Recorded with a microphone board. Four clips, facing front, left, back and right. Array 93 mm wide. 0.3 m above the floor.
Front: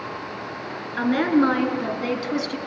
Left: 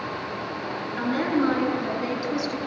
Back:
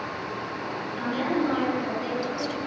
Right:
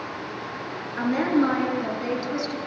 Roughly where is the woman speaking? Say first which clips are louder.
Right 2 dB, front 8 dB; ahead.